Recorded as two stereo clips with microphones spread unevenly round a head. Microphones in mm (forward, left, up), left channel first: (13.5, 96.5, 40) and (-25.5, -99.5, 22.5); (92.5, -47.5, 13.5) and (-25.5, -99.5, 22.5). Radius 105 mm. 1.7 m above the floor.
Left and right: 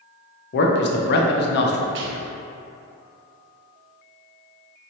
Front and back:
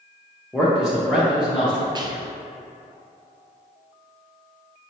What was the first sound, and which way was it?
A man speaking, 115° left.